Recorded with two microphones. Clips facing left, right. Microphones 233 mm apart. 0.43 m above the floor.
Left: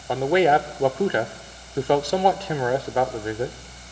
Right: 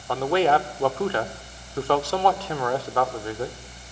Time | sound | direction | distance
0.1 | a man speaking | 15° left (ahead or behind) | 0.7 m